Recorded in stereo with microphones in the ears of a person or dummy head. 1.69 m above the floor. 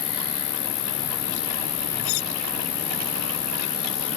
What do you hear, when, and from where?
0.0 s an insect: 80° left
2.0 s cutlery clinking: 70° left (ahead or behind)